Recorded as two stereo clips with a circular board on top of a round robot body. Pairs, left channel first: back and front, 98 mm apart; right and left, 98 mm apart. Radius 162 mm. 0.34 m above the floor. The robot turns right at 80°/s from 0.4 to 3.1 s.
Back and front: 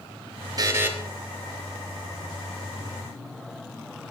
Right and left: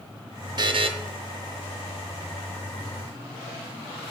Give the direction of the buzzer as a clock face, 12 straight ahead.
10 o'clock.